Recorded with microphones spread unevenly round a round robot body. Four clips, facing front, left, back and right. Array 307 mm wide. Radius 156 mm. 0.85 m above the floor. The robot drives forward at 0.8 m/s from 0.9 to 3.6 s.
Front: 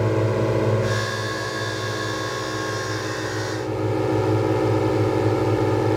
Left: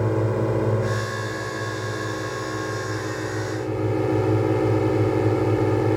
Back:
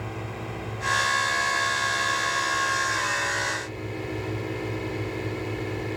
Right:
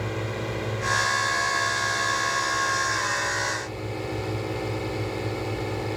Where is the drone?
40° left; by 6.0 s 50° left.